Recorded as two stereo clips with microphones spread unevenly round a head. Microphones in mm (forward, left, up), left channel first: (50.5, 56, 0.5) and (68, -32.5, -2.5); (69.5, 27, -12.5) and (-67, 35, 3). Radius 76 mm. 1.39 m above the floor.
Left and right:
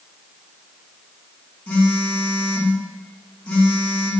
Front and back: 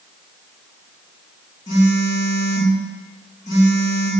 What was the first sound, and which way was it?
A phone buzzing, 30° left.